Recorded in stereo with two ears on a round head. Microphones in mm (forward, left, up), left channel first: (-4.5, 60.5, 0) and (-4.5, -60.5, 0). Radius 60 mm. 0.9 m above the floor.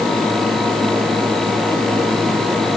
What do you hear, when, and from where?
Only background noise.